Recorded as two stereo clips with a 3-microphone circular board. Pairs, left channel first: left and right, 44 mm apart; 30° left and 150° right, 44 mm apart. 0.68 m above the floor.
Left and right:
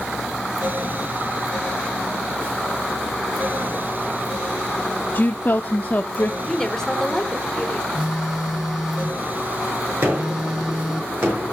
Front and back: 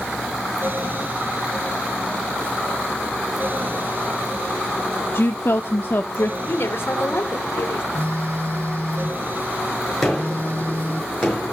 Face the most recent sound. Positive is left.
turn(degrees=-50)